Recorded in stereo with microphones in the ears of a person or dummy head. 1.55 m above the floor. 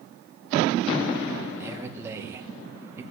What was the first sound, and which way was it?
A man speaking, 15° right (ahead or behind).